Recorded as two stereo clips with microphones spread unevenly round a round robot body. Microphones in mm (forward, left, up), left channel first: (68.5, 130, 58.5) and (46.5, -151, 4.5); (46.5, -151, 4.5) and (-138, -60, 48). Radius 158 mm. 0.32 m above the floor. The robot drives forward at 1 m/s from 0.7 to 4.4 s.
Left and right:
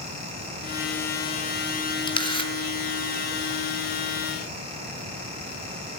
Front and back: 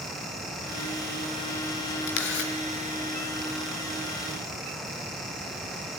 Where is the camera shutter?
10° left, 3 m.